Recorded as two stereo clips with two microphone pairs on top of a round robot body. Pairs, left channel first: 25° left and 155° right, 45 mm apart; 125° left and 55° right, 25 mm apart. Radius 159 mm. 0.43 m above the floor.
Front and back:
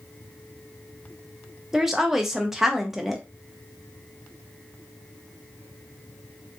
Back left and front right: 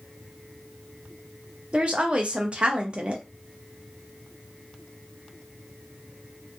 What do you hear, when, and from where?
1.7 s a woman speaking: 60° right, 0.8 m